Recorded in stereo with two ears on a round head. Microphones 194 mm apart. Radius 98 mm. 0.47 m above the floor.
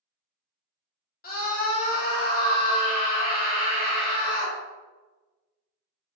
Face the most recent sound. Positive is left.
turn(degrees=45)  # may be behind; listen again after turning